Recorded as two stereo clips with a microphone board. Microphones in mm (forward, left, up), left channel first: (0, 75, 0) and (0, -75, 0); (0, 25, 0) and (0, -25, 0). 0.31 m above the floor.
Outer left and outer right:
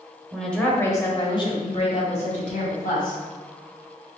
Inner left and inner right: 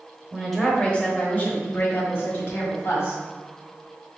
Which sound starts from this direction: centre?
A woman speaking, at 0.3 s.